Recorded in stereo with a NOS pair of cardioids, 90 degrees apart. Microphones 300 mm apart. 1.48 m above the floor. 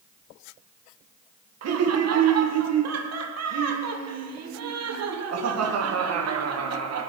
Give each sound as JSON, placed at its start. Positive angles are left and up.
{"t": 1.6, "sound": "laughter", "azimuth_deg": -55, "distance_m": 1.2}